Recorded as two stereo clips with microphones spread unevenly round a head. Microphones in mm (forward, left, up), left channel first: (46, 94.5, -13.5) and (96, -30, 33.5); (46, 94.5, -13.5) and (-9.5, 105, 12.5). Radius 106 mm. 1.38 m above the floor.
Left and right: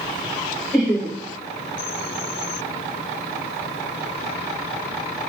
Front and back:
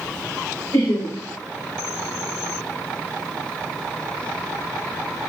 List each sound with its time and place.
0.7 s laughter: 30° left, 3.5 m